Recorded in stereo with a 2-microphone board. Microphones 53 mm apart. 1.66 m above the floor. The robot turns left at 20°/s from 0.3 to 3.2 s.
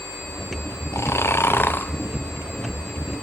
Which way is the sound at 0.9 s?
55° left (ahead or behind).